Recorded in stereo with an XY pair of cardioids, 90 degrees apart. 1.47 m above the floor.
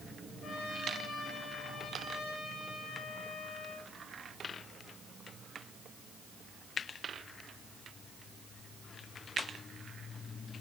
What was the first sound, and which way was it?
A trumpet, 70° left.